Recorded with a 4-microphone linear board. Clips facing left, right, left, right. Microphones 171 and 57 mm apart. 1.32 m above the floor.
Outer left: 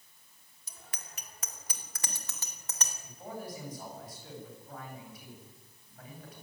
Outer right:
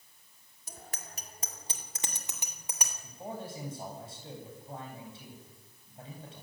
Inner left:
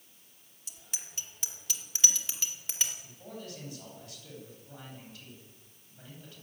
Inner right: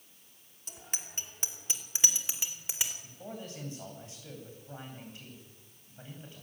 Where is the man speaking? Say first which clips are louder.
Outer right 1 dB, inner right 1 dB; 30° right (ahead or behind), 9.5 m.